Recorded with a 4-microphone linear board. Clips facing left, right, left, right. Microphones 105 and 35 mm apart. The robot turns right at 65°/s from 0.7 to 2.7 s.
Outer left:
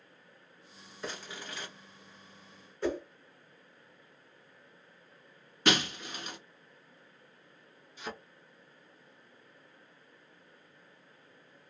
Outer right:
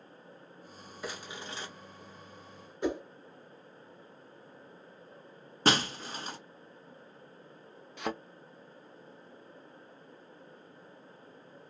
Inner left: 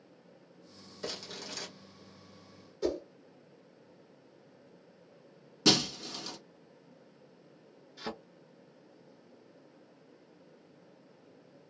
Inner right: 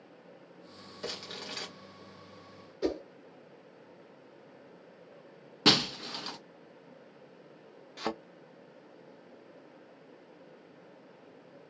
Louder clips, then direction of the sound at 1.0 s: Even, inner right 1 dB; 170° right.